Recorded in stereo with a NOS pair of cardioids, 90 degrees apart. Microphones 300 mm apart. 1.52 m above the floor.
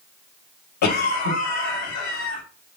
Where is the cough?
65° left, 1.8 m.